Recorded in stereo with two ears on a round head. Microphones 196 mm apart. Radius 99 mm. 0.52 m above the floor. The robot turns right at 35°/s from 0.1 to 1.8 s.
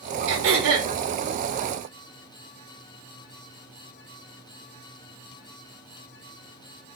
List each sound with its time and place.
0.3 s throat clearing: 60° right (ahead or behind), 1.0 m; by 0.9 s 65° right (ahead or behind), 1.0 m